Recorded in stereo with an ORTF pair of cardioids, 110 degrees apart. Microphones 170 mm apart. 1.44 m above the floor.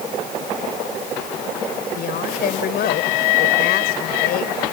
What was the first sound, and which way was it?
A woman speaking, 65° left.